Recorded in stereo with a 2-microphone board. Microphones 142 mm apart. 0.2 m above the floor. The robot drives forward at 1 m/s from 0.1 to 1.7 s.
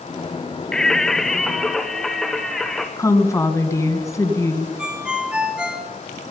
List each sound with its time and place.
0.7 s singing: 5° left (ahead or behind), 0.7 m; by 2.9 s centre (ahead or behind), 1.7 m
3.0 s a woman speaking: 20° left (ahead or behind), 2 m
4.8 s a ringtone: 5° right (ahead or behind), 2 m